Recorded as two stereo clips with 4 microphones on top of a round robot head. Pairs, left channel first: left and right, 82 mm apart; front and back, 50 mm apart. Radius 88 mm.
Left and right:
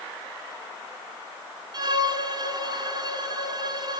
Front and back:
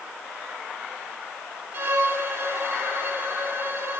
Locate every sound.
1.7 s a violin: 130° right, 3.5 m